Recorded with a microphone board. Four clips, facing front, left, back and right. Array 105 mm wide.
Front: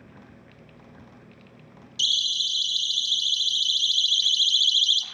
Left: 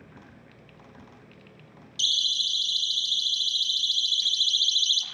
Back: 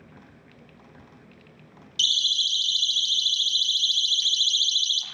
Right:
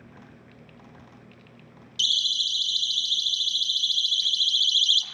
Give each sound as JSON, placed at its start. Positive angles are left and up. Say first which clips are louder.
{"t": 2.0, "sound": "a siren", "louder": "right 1 dB, back 1 dB", "azimuth_deg": -170, "distance_m": 3.5}